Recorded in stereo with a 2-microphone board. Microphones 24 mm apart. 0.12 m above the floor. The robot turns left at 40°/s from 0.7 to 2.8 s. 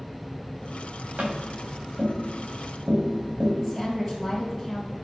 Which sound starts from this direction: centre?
A woman speaking, at 3.6 s.